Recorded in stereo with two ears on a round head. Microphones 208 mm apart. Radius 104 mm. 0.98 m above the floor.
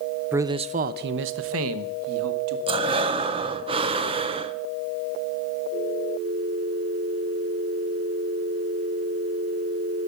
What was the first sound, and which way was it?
A man speaking, 10° right (ahead or behind).